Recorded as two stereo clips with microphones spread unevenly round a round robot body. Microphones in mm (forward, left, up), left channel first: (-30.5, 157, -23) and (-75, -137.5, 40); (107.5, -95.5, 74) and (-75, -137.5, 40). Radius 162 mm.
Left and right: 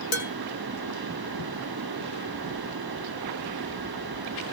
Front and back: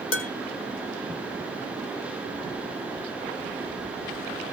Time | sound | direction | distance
0.1 | dishes clattering | 15° left | 1.8 m